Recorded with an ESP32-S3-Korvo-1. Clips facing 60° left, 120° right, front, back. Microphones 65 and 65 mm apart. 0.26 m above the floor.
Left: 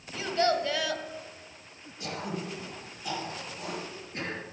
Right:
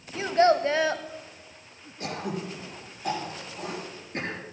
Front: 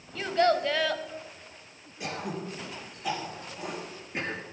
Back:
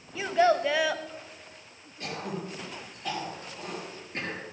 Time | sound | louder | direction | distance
0.1 | a child speaking | right 6 dB, back 1 dB | 105° right | 0.7 m
2.0 | throat clearing | right 3 dB, front 1 dB | 75° right | 3.5 m